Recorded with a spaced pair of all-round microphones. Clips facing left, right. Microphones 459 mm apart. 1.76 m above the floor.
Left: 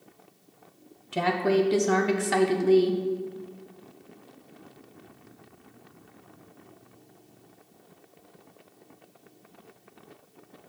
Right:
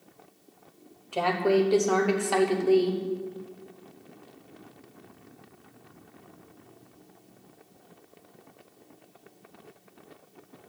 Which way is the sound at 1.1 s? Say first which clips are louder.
Even; 35° left (ahead or behind).